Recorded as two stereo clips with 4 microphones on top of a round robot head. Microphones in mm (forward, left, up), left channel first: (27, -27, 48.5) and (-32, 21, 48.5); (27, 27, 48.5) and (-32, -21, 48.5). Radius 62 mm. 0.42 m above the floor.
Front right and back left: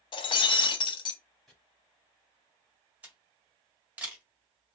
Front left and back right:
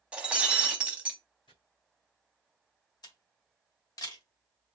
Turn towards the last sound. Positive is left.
turn(degrees=70)